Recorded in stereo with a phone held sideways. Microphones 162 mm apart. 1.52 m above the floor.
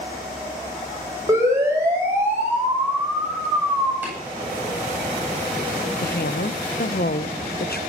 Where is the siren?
20° right (ahead or behind), 9.5 m; by 3.9 s 5° right (ahead or behind), 8.5 m.